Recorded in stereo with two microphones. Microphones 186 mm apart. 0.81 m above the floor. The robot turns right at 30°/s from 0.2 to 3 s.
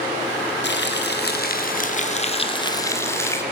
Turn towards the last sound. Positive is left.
turn(degrees=165)